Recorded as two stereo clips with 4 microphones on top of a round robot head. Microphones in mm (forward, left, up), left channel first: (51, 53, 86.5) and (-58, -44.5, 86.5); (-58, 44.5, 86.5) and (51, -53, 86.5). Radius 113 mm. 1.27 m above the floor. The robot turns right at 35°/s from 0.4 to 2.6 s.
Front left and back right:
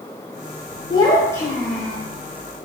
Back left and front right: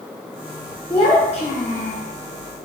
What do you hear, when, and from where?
0.9 s a child speaking: 90° left, 0.6 m; by 2.0 s 130° left, 0.6 m